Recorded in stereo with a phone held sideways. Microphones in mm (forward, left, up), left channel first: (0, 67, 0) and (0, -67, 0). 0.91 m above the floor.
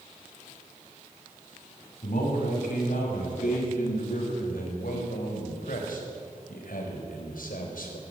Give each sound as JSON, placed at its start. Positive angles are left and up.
{"t": 2.0, "sound": "a man speaking", "side_deg": 75, "distance_m": 7.0}